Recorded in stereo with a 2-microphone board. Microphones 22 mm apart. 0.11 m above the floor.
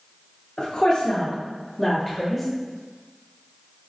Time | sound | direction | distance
0.6 | a woman speaking | 50° left (ahead or behind) | 1.6 m